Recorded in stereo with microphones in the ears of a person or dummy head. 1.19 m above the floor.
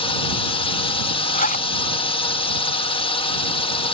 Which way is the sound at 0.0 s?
25° left (ahead or behind).